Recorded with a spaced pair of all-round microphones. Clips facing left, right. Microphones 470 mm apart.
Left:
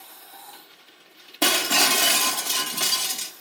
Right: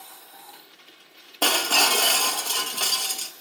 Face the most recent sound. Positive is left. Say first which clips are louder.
# left 2 dB
turn(degrees=40)  # may be behind; listen again after turning